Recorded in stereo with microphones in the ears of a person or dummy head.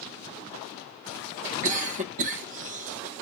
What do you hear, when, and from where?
1.6 s a cough: 40° right (ahead or behind), 1.5 m